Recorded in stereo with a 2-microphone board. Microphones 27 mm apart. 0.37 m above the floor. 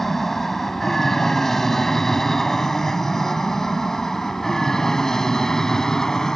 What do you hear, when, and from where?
0.0 s an aircraft: 10° left (ahead or behind); by 6.4 s 20° left (ahead or behind)